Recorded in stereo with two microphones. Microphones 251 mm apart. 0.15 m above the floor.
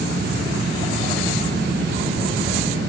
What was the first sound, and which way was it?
Only background noise.